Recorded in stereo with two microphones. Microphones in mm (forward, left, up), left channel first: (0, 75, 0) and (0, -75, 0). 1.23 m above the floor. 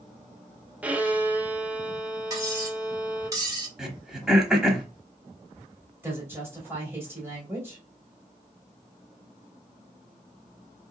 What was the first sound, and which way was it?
A violin, 10° right (ahead or behind).